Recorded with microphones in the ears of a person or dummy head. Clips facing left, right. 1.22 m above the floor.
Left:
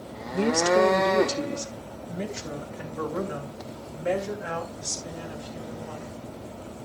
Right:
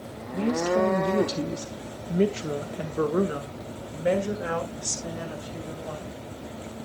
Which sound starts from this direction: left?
A woman speaking, at 0.3 s.